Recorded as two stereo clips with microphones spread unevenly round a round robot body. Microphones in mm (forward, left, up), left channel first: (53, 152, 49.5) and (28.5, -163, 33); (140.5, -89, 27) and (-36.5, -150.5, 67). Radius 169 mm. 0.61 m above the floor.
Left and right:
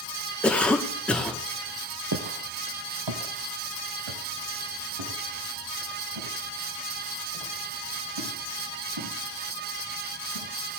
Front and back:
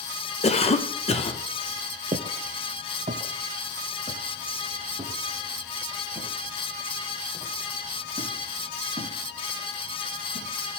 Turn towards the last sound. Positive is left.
turn(degrees=-100)